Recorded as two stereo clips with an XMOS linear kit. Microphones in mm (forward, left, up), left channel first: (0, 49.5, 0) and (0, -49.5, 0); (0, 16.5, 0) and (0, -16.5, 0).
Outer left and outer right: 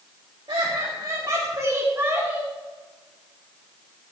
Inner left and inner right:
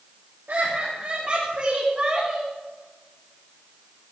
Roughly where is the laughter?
Right.